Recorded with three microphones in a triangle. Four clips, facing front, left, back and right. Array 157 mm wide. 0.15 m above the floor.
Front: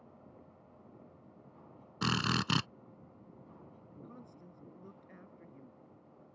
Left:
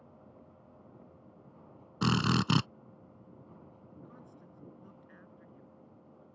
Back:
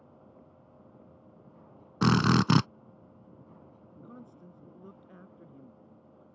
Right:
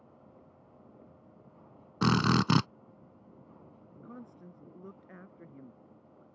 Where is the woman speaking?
105° right.